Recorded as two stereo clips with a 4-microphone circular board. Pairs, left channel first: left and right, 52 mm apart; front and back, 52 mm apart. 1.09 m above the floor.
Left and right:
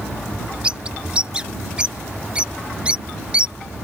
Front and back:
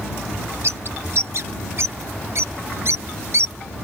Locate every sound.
0.6 s a bird: 155° right